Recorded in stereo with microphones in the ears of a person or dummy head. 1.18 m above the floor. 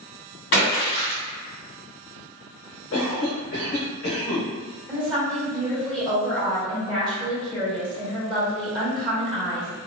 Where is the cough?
65° left (ahead or behind), 1.0 m.